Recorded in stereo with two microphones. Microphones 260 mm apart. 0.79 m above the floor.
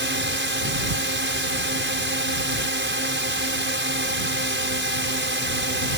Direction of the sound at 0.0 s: 45° right (ahead or behind).